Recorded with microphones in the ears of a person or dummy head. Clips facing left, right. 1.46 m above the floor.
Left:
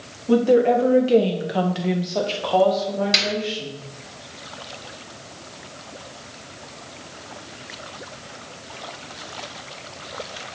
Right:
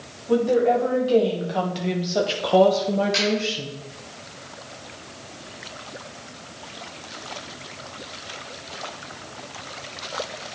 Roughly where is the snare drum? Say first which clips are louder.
Right 4 dB; left.